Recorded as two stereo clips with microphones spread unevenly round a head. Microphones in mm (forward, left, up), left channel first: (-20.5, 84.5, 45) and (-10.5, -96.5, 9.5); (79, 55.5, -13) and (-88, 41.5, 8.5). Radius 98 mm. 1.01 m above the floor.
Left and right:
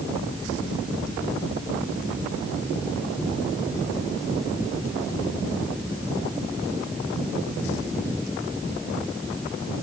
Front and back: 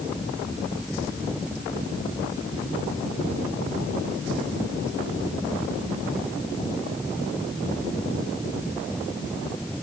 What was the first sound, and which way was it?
Only background noise.